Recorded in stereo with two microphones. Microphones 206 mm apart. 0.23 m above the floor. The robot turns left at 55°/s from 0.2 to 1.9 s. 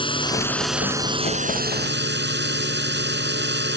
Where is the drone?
25° left; by 3.8 s 65° right.